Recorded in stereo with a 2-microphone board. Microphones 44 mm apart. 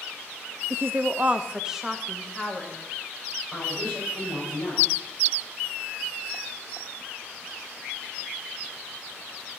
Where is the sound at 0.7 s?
65° right (ahead or behind), 0.5 m; by 2.8 s 5° left (ahead or behind), 1.8 m.